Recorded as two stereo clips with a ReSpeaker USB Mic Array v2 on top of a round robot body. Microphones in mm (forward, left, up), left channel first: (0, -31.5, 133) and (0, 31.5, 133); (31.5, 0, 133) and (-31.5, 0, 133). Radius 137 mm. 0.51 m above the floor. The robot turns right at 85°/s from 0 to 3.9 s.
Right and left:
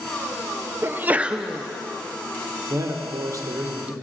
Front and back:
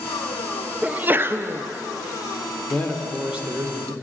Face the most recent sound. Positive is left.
turn(degrees=155)